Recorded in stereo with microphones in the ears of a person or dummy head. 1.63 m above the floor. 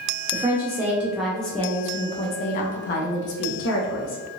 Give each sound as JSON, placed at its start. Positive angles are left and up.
{"t": 0.3, "sound": "a woman speaking", "side_deg": -20, "distance_m": 1.2}